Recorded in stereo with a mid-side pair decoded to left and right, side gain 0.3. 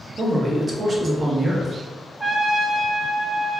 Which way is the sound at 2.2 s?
40° right.